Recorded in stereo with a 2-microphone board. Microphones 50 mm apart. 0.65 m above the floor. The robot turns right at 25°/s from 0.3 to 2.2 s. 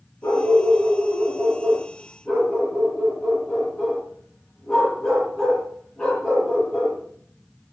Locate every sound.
0.2 s a dog barking: 120° left, 8.5 m; by 7.0 s 170° left, 8.5 m